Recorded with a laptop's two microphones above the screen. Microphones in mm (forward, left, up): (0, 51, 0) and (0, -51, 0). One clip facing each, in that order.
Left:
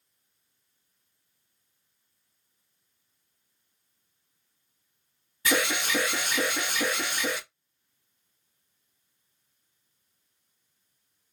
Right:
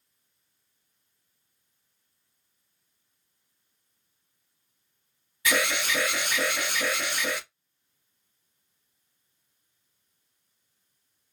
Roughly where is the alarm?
Left.